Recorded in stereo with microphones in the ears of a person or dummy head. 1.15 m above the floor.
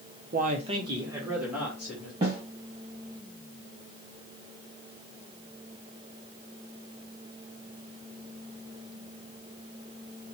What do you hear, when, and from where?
0.3 s a man speaking: 40° right (ahead or behind), 0.7 m; by 2.1 s 5° right (ahead or behind), 2 m
2.2 s a snare drum: 20° right (ahead or behind), 1.9 m